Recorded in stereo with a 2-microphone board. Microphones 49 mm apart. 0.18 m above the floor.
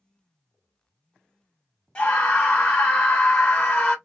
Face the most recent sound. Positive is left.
turn(degrees=20)  # may be behind; listen again after turning